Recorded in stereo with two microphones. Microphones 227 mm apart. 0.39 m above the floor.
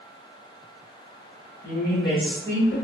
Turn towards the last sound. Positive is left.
turn(degrees=60)  # may be behind; listen again after turning